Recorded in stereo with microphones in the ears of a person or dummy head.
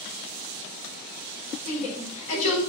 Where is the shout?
40° left (ahead or behind), 5.5 m.